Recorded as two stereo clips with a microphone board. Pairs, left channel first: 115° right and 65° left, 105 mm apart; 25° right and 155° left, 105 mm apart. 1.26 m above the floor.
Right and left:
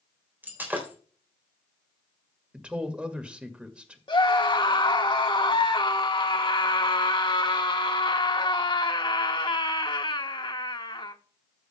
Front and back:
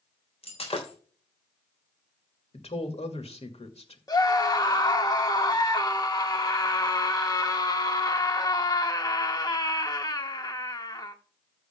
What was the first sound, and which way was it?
Breaking glass, 5° right.